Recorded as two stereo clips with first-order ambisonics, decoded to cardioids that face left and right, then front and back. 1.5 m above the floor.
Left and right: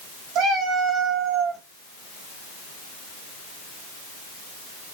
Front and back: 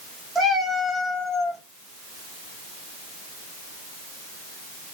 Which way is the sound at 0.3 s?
110° right.